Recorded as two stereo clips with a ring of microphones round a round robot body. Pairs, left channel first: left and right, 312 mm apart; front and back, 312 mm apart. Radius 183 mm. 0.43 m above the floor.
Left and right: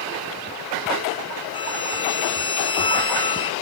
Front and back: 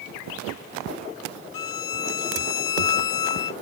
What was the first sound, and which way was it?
A violin, 15° left.